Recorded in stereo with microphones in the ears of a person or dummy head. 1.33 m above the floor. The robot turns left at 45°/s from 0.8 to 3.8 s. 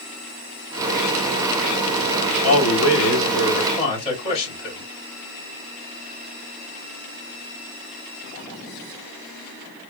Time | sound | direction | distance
2.4 | a man speaking | 90° left | 3.5 m